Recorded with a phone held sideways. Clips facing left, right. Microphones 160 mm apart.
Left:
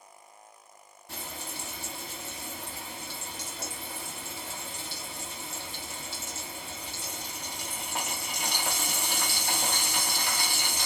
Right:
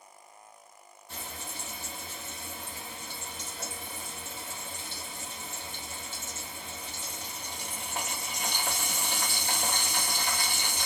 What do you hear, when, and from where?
1.1 s frying: 75° left (ahead or behind), 1.5 m